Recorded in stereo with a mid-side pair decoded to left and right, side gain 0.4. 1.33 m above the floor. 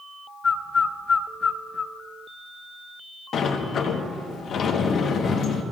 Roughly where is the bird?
Ahead left.